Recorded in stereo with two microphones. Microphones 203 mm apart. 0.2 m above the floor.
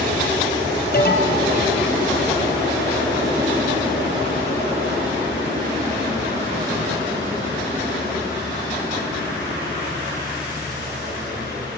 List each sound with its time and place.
0.9 s an alarm: 50° left (ahead or behind), 4.5 m